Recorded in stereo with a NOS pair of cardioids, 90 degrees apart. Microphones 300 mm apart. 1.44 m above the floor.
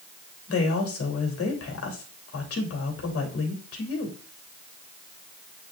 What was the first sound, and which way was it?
A woman speaking, 50° left.